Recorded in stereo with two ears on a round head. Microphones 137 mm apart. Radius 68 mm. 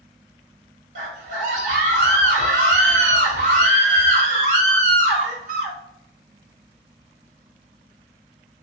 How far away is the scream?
About 1.3 m.